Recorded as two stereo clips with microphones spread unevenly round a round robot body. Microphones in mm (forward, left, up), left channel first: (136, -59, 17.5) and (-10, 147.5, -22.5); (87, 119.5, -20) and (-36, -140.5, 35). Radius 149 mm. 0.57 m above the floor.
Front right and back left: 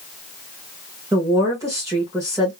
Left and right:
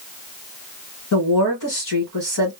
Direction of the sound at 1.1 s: 55° left.